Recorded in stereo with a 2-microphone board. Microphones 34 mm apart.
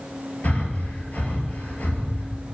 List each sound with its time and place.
0.4 s breathing: 50° left (ahead or behind), 2 m